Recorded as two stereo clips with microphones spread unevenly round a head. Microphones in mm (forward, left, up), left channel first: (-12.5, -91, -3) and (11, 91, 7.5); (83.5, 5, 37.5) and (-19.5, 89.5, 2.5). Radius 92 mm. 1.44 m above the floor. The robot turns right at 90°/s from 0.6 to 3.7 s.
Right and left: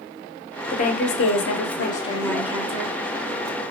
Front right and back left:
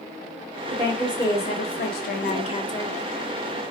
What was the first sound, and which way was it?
A woman speaking, 160° right.